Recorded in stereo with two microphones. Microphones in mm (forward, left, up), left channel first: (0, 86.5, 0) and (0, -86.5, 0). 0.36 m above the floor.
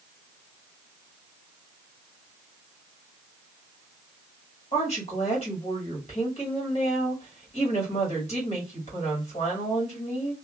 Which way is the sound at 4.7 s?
40° left (ahead or behind).